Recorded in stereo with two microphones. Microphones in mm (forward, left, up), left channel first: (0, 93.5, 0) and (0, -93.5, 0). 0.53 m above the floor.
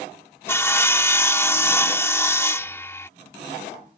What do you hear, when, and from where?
0.5 s sawing: 15° left (ahead or behind)